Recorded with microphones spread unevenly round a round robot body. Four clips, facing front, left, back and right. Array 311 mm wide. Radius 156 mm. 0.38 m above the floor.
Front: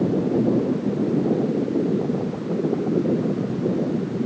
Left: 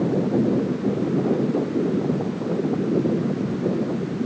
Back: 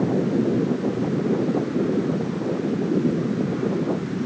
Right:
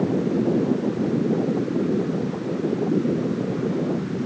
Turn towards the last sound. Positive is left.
No sound to turn to.